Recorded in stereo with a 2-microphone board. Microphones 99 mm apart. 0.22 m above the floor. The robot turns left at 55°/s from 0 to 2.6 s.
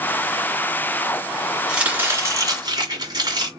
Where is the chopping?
10° right, 1.9 m; by 3.5 s 60° right, 1.9 m.